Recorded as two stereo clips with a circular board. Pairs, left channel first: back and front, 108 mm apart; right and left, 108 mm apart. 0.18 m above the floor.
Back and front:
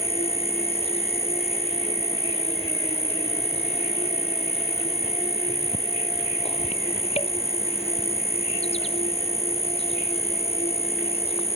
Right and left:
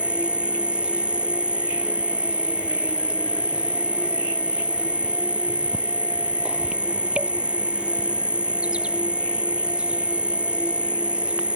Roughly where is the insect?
Behind.